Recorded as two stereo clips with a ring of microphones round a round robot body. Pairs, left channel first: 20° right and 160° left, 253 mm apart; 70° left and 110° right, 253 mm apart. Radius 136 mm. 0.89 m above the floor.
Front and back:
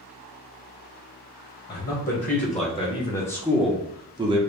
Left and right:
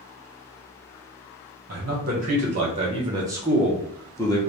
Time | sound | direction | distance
1.7 | a man speaking | 65° right | 1.3 m